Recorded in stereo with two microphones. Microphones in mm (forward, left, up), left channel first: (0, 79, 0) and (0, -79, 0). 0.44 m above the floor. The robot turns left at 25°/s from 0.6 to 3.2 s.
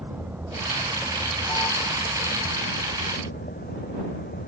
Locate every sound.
0.0 s a vehicle: 15° right (ahead or behind); by 4.5 s 85° left